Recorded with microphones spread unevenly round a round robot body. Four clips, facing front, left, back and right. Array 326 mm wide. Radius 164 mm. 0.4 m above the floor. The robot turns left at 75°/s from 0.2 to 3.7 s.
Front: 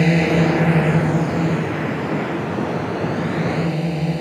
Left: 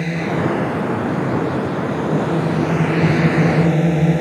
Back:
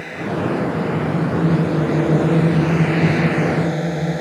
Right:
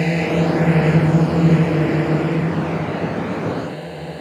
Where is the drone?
5° right; by 4.2 s 90° left.